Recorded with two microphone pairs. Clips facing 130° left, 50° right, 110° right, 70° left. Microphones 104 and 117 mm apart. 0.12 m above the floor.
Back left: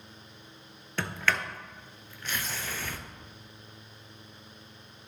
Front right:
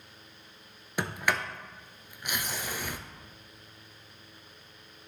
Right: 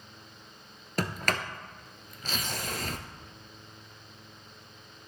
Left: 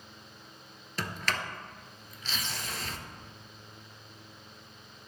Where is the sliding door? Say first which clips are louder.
Even, right 4 dB; 120° right, 0.8 m.